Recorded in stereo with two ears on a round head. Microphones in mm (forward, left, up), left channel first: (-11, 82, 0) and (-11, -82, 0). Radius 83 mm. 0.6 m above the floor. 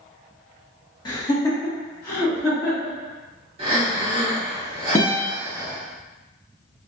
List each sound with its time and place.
1.1 s laughter: 25° left (ahead or behind), 1.0 m; by 3.0 s 15° left (ahead or behind), 1.5 m
3.6 s breathing: 35° right (ahead or behind), 1.4 m
5.0 s a guitar: 20° left (ahead or behind), 0.6 m